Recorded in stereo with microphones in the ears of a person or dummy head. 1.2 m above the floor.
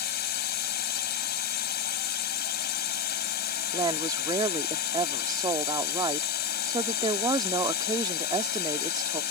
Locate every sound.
0.0 s a drone: 45° left (ahead or behind)
3.7 s a woman speaking: 20° right (ahead or behind)